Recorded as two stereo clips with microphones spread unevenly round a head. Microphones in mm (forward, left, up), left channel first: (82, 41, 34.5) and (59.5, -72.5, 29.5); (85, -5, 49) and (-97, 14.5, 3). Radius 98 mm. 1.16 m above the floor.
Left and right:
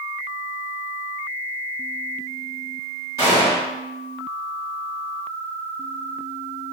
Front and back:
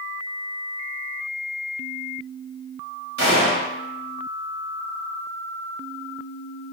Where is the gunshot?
160° right, 1.1 m.